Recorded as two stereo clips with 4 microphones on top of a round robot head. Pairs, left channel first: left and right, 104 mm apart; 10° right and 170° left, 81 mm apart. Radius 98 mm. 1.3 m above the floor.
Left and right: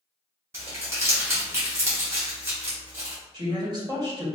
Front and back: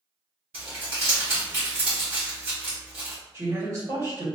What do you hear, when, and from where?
0.5 s crumpling: 150° right, 1.3 m
3.3 s a woman speaking: 130° right, 1.9 m